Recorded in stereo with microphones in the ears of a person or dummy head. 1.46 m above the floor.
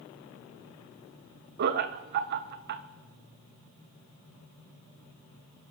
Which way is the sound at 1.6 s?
55° right (ahead or behind).